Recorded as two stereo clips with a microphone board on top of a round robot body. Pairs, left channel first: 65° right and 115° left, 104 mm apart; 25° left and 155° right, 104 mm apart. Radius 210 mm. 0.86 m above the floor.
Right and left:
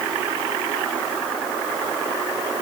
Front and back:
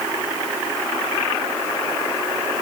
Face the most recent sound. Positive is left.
No sound to turn to.